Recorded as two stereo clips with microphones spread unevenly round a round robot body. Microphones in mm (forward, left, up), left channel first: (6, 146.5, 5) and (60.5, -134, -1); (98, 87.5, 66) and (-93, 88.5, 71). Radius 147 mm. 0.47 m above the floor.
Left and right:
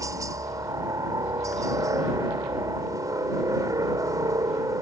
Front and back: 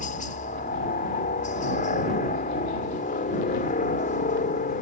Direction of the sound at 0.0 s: 5° right.